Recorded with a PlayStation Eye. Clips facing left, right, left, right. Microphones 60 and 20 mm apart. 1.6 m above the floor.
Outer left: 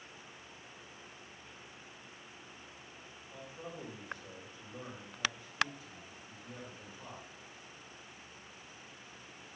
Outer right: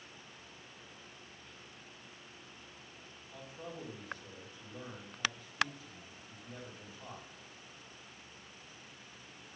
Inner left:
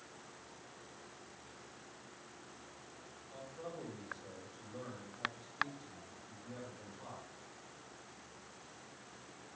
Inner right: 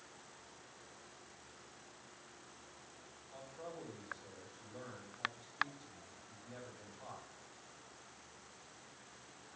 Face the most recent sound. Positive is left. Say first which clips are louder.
# even, inner left 2 dB
turn(degrees=50)  # may be behind; listen again after turning